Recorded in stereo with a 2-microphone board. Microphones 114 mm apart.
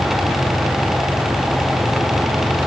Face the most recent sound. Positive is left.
No sound to turn to.